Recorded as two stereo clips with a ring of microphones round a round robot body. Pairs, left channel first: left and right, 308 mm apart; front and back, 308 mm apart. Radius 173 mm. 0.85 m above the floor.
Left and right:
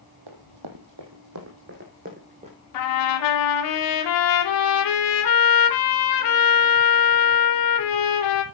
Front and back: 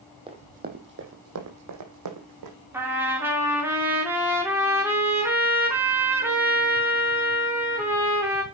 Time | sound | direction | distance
0.3 | running footsteps | 105° right | 2.5 m
2.7 | a trumpet | 95° left | 3 m